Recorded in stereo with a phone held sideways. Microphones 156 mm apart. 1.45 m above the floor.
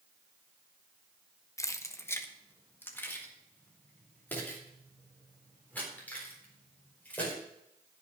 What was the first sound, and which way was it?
Keys jangling, 20° left (ahead or behind).